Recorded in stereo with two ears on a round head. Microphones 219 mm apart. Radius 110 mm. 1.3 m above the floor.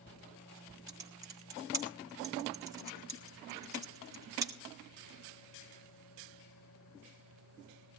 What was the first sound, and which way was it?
Typing on a keyboard, 15° right (ahead or behind).